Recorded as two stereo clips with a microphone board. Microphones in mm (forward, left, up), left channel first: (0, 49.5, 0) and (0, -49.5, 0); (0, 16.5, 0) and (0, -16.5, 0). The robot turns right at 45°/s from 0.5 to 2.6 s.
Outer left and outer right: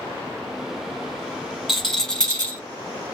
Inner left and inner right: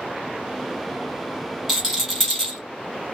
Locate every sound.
1.7 s a rattle: 5° right, 2.0 m; by 2.6 s 40° left, 2.0 m